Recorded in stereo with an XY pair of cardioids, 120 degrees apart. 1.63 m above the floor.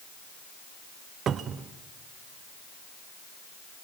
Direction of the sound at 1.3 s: 50° right.